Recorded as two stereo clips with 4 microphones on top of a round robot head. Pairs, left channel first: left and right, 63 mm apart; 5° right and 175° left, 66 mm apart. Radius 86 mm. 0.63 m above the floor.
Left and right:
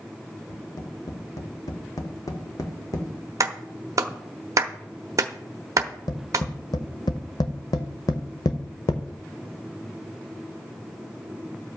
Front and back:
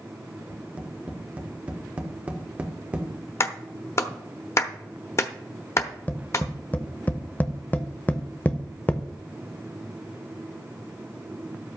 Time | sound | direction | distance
0.5 | tapping | 105° left | 1.5 m
3.4 | a clap | 55° right | 0.9 m
5.8 | tapping | 60° left | 0.7 m